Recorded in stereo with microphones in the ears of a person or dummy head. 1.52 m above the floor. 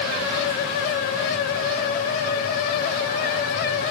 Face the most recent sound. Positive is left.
No sound to turn to.